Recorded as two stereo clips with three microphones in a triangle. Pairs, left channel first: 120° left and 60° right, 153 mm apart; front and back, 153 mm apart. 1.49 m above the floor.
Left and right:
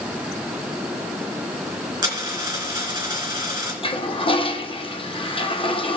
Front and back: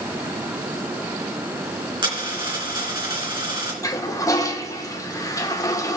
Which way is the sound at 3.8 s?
65° left.